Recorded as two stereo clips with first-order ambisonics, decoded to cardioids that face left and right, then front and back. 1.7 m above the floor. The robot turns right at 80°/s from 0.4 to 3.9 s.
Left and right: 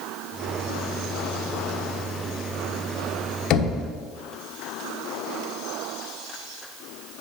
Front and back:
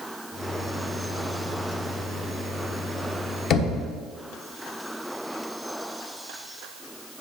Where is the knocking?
50° left, 1.2 m; by 3.8 s 70° left, 1.2 m.